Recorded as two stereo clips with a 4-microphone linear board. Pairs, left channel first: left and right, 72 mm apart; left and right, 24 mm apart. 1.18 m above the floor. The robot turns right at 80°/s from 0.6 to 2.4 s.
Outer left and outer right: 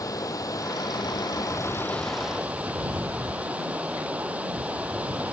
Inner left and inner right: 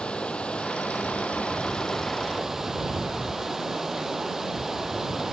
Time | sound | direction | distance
0.0 | running water | 55° left | ?